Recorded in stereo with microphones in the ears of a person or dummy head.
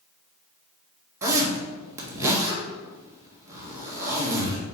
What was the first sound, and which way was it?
A zipper, 15° right (ahead or behind).